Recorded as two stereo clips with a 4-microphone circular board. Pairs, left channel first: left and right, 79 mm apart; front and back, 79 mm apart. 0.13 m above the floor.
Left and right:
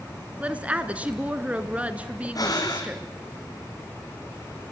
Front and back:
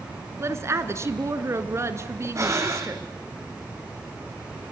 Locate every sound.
0.4 s a woman speaking: 155° right, 1.5 m
2.4 s breathing: 125° left, 2.5 m